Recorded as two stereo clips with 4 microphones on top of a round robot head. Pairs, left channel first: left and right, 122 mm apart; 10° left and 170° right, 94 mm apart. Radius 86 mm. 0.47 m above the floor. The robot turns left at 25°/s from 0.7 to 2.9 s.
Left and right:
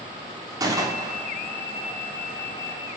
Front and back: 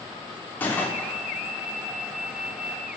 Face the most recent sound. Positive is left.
turn(degrees=-105)